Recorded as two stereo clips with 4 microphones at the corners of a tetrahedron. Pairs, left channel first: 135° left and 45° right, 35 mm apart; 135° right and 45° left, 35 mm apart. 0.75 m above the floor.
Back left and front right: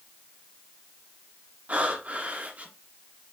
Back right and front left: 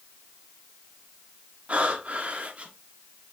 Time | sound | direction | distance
1.7 | breathing | straight ahead | 1.5 m